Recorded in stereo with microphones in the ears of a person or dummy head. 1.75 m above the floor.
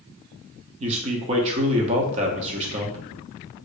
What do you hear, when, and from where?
0.8 s a man speaking: 25° right (ahead or behind), 0.6 m